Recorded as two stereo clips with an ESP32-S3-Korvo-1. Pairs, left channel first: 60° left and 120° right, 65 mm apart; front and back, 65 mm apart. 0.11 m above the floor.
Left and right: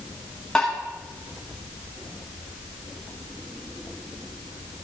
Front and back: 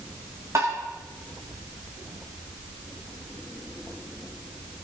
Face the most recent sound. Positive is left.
turn(degrees=135)